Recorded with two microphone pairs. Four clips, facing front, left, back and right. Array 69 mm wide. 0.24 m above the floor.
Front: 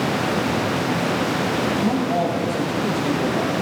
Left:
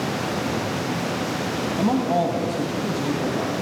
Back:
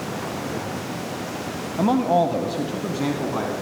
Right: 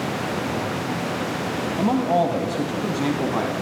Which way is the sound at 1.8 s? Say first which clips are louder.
Right 1 dB, back 7 dB; straight behind.